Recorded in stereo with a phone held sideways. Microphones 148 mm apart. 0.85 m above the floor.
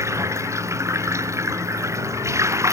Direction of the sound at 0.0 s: 20° right (ahead or behind).